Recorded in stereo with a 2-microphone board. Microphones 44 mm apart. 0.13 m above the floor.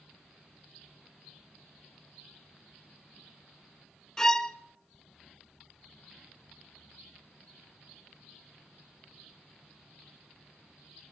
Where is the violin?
15° left (ahead or behind), 0.8 m.